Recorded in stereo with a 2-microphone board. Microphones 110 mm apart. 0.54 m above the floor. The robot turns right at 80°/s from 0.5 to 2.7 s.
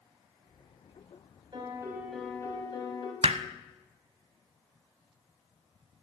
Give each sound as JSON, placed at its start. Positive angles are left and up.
{"t": 1.5, "sound": "a piano", "azimuth_deg": -45, "distance_m": 3.5}
{"t": 3.2, "sound": "hammering", "side_deg": -65, "distance_m": 0.8}